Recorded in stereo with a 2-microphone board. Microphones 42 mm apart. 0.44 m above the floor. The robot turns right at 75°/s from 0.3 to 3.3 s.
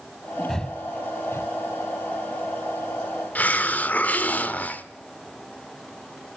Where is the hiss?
40° left (ahead or behind), 1.1 m.